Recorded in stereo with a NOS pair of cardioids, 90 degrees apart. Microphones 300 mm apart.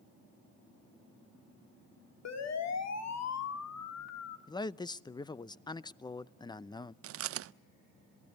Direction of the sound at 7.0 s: 50° right.